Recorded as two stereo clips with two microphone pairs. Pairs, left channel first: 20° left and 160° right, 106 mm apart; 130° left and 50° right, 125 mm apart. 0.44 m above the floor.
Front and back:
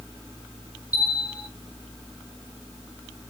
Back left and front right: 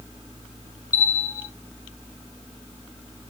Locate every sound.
0.9 s a bell: 80° left, 1.2 m